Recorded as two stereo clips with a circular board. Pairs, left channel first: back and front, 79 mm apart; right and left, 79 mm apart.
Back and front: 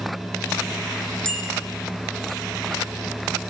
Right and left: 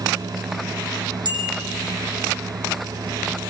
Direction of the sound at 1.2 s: 100° left.